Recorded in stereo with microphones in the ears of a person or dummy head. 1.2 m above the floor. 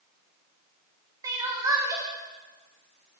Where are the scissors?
I don't hear scissors.